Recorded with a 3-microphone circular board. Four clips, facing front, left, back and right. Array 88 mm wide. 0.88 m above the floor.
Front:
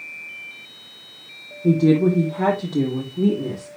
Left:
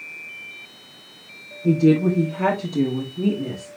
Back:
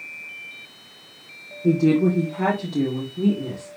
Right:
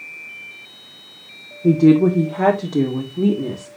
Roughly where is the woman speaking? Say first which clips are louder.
Right 4 dB, front 2 dB; right.